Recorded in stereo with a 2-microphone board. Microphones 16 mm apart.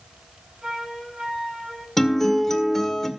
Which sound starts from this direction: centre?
A guitar, at 2.0 s.